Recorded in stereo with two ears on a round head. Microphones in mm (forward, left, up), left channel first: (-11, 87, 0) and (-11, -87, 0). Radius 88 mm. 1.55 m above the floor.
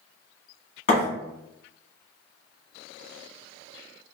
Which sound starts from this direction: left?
A thud, at 0.9 s.